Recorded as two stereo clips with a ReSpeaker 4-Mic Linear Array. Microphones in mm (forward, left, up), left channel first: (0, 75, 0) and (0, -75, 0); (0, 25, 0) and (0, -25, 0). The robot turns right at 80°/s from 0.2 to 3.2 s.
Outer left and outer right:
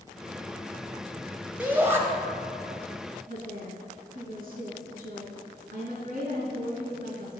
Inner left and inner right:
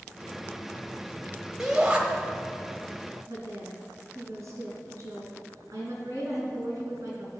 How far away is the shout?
About 0.9 m.